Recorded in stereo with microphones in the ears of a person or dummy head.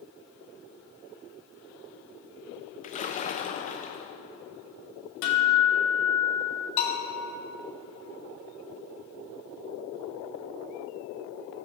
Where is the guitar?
70° left (ahead or behind), 1.9 m.